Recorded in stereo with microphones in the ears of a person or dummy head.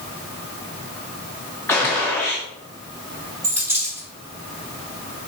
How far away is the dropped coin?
About 1.6 m.